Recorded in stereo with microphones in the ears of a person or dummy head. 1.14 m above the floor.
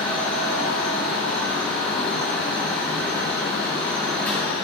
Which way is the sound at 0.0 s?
5° left (ahead or behind).